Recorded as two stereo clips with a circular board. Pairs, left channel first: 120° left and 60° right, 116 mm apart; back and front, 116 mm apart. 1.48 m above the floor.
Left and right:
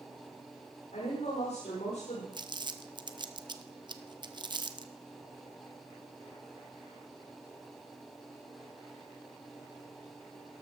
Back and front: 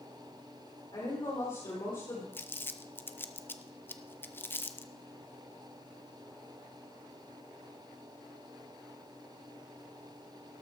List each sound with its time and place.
0.9 s a woman speaking: 130° left, 5 m
2.3 s crumpling: 110° right, 0.8 m